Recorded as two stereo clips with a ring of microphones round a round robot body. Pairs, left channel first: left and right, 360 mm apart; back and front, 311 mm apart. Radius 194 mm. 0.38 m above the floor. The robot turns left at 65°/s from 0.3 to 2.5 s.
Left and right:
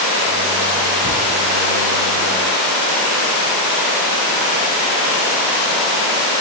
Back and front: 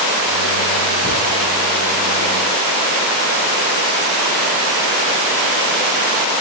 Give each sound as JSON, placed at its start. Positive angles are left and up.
{"t": 1.0, "sound": "a cupboard door", "azimuth_deg": 75, "distance_m": 1.8}